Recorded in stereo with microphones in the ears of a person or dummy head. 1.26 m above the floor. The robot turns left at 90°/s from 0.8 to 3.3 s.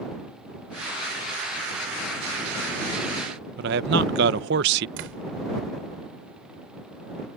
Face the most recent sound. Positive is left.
turn(degrees=-70)  # may be behind; listen again after turning